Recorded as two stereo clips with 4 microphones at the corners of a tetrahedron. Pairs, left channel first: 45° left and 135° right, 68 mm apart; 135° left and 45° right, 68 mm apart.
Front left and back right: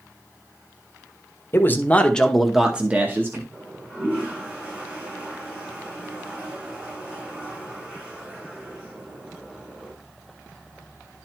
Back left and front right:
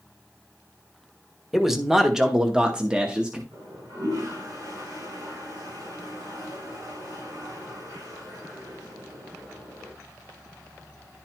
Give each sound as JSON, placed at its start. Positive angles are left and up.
{"t": 1.5, "sound": "a man speaking", "azimuth_deg": 40, "distance_m": 1.0}
{"t": 3.5, "sound": "a toilet flushing", "azimuth_deg": -70, "distance_m": 6.5}